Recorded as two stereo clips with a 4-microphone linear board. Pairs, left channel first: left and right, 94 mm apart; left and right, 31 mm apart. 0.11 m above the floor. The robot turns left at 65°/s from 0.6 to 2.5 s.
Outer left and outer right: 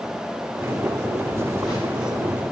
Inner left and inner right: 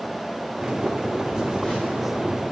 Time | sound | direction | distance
1.2 | a phone buzzing | 25° left | 5.5 m